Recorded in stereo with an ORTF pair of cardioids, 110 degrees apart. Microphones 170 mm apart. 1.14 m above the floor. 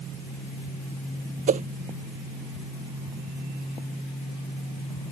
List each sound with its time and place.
1.5 s a whoosh: 45° right